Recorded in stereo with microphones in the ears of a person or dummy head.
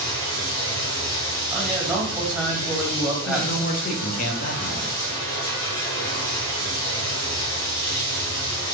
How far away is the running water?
About 1.9 m.